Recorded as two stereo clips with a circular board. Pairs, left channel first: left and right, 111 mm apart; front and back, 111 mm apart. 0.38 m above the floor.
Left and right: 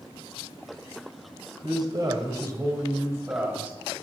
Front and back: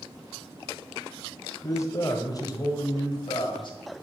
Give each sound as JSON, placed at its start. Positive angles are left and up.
{"t": 1.6, "sound": "a man speaking", "azimuth_deg": -55, "distance_m": 2.0}